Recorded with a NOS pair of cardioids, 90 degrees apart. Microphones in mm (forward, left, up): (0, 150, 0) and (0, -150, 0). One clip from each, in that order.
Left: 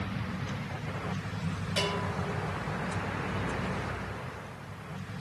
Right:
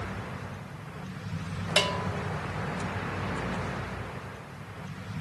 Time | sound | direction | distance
1.8 | a bell | 65° right | 1.2 m